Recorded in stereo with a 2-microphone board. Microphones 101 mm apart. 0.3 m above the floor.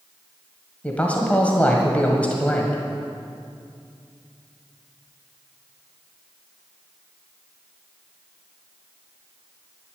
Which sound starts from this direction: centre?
A man speaking, at 0.8 s.